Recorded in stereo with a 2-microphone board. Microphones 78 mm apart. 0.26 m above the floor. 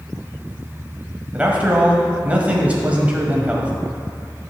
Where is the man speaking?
20° right (ahead or behind), 1.2 m.